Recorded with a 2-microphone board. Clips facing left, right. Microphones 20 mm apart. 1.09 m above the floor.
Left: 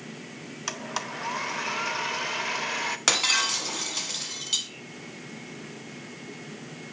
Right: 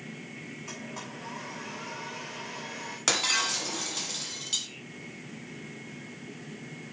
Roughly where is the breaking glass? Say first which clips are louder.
Left 3 dB; centre.